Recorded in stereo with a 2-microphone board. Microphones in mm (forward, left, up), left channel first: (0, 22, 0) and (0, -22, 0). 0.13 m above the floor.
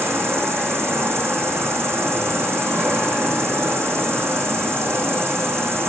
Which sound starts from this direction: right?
An insect, at 0.0 s.